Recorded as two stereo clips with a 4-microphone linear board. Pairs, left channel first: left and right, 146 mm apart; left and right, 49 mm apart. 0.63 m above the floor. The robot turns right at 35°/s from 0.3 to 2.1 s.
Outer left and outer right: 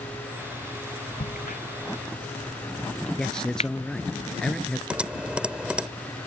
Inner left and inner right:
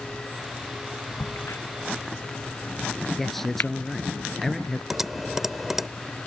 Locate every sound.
1.2 s a crack: 80° left; by 3.7 s 50° left (ahead or behind)
3.2 s a man speaking: 5° left (ahead or behind)
4.9 s typing on a keyboard: 5° right (ahead or behind)